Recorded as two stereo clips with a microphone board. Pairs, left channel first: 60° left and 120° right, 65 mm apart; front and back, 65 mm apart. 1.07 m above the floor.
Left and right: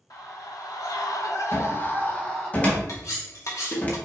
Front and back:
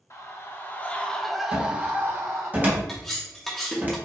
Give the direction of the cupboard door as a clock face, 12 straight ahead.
8 o'clock.